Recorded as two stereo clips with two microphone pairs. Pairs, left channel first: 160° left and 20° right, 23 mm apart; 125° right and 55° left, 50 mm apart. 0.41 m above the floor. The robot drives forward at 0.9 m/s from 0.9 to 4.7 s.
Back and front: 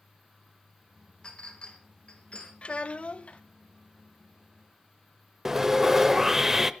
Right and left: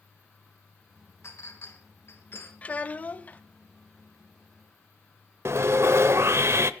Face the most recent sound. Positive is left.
turn(degrees=55)